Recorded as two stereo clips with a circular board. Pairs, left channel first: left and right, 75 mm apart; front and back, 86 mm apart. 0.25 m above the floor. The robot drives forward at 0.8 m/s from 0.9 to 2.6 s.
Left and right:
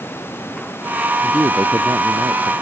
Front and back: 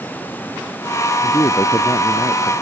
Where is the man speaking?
45° right; by 2.5 s 50° right.